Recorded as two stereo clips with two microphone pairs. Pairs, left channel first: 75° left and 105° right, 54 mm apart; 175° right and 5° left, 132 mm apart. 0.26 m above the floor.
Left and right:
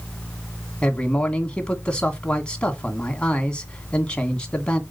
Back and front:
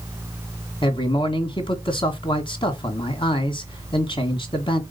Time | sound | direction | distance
0.8 | a man speaking | 145° left | 2 m